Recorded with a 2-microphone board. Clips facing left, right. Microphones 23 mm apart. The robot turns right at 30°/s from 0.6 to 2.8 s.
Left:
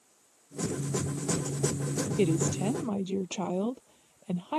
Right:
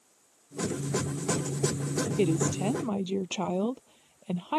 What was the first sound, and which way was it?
A woman speaking, centre (ahead or behind).